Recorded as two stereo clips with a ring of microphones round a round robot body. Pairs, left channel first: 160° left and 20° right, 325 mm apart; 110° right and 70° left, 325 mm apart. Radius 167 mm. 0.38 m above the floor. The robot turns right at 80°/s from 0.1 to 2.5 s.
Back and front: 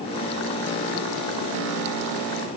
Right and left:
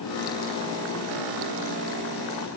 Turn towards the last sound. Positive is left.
No sound to turn to.